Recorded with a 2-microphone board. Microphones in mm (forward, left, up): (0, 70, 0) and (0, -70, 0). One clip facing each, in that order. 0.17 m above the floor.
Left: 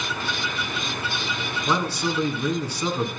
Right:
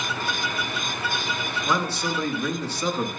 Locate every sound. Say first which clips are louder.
1.7 s a man speaking: left 2 dB; 15° left (ahead or behind), 2 m